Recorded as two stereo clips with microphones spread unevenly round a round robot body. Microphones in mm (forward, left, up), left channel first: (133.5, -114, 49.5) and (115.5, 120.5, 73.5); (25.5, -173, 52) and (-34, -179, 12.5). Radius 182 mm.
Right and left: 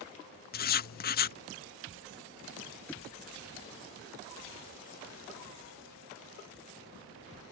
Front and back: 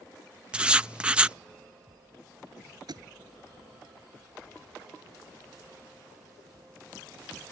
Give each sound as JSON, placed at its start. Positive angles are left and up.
{"t": 0.5, "sound": "writing", "azimuth_deg": -125}
{"t": 2.9, "sound": "a thud", "azimuth_deg": -175}